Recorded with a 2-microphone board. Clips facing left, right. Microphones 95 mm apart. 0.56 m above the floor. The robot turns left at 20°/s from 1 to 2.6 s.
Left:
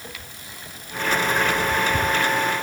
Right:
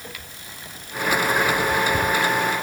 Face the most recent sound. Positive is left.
No sound to turn to.